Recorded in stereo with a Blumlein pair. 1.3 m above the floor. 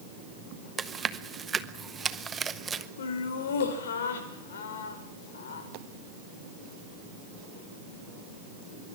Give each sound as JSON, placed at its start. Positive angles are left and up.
{"t": 0.8, "sound": "chewing", "azimuth_deg": -15, "distance_m": 1.2}
{"t": 3.0, "sound": "laughter", "azimuth_deg": 60, "distance_m": 5.0}